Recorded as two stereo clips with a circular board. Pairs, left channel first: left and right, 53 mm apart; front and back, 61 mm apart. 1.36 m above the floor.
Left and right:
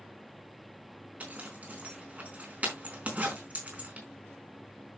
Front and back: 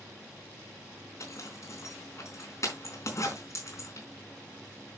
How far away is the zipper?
About 4 m.